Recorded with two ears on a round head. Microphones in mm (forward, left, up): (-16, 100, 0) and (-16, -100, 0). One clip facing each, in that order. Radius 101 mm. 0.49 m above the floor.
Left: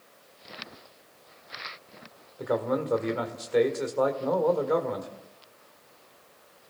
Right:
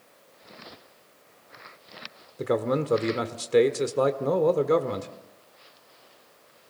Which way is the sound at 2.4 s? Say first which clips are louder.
Right 2 dB; 40° right (ahead or behind).